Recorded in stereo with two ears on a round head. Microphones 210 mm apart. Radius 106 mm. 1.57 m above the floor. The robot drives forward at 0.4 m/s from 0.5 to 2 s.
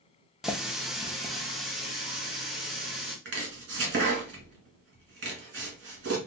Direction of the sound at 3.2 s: 50° right (ahead or behind).